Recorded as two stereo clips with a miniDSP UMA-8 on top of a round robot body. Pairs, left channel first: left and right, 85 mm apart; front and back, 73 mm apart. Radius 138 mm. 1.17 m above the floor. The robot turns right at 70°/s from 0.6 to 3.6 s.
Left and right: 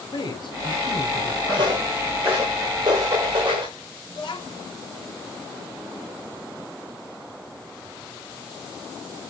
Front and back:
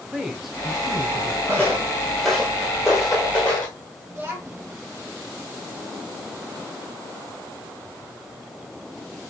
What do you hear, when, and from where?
0.1 s a man speaking: 95° left, 1.2 m; by 1.8 s straight behind, 1.2 m
1.5 s footsteps: 80° right, 1.2 m; by 3.8 s 60° right, 1.4 m
4.1 s a child speaking: 120° left, 1.6 m